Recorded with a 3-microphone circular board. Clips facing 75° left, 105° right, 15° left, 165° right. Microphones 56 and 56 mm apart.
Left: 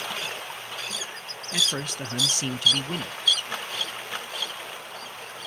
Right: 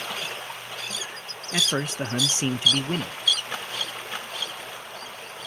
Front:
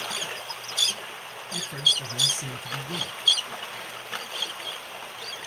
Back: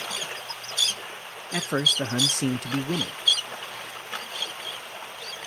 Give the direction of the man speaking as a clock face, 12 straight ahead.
6 o'clock.